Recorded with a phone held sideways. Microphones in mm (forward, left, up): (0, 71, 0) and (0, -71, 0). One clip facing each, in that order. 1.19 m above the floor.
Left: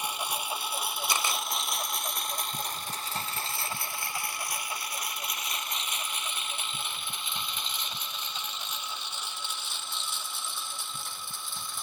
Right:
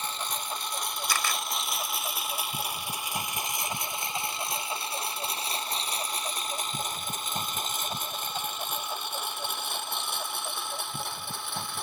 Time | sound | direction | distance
0.0 | a lawn mower | 15° left (ahead or behind) | ?
1.1 | a camera shutter | 20° left (ahead or behind) | ?